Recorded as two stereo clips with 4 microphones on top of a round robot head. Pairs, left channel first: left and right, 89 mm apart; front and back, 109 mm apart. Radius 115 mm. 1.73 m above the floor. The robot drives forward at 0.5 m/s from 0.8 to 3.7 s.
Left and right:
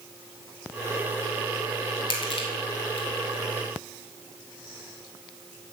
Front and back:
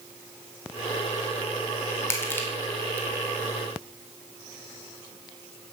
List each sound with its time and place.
2.1 s crushing: 65° left, 2.5 m; by 3.1 s 80° left, 2 m